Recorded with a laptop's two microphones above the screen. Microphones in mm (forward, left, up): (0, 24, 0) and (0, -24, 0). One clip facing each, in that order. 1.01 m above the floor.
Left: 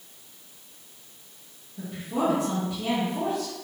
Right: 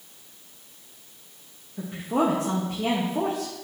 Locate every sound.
1.8 s a woman speaking: 50° right (ahead or behind), 1.4 m